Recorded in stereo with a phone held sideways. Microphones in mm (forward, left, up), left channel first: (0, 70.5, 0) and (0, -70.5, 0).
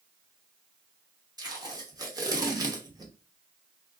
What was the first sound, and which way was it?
Tape being pulled, 25° right (ahead or behind).